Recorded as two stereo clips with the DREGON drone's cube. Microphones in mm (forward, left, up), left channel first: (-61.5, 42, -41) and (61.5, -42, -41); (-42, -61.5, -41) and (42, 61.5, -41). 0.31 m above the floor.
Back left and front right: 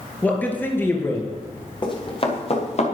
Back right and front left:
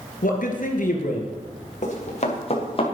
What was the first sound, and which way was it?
A man speaking, 135° right.